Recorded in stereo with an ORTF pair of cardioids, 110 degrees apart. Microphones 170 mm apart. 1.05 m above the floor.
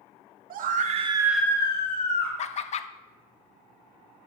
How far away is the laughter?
About 0.5 m.